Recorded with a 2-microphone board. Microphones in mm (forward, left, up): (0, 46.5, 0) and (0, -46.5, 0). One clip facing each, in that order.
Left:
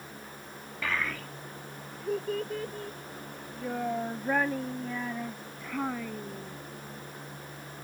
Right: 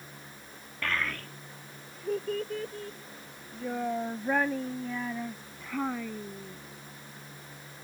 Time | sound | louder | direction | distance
0.8 | a child speaking | even | 5° left (ahead or behind) | ?